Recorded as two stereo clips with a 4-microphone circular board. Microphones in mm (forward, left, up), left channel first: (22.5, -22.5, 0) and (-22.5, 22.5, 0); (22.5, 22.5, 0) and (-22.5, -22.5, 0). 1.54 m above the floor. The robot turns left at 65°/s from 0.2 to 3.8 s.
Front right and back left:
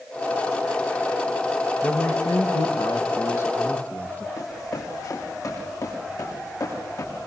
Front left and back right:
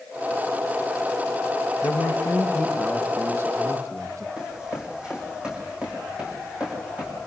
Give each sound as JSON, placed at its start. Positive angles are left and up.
{"t": 1.8, "sound": "a man speaking", "azimuth_deg": 15, "distance_m": 2.0}
{"t": 4.4, "sound": "running footsteps", "azimuth_deg": -60, "distance_m": 5.5}